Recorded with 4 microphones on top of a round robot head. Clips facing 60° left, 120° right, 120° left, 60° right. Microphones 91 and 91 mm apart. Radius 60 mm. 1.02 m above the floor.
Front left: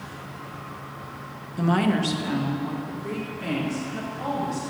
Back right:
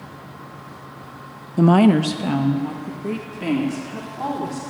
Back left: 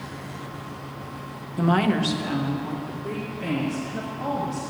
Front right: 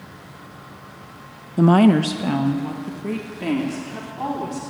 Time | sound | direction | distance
1.6 | a woman speaking | 110° right | 0.6 m